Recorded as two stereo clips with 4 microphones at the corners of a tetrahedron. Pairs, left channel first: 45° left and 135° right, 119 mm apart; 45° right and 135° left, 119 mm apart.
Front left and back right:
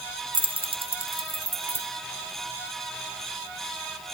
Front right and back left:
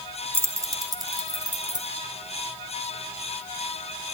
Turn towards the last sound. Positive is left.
turn(degrees=-175)